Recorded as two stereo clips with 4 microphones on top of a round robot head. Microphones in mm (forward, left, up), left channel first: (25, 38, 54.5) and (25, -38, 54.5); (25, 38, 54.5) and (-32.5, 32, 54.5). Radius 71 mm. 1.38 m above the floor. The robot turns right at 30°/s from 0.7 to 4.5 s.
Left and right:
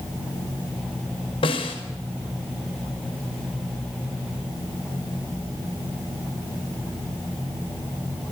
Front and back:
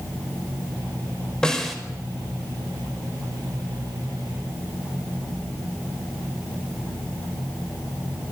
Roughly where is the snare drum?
Left.